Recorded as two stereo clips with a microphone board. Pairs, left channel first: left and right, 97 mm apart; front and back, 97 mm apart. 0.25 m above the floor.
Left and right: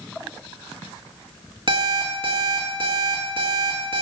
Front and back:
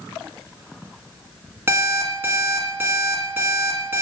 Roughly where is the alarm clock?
Behind right.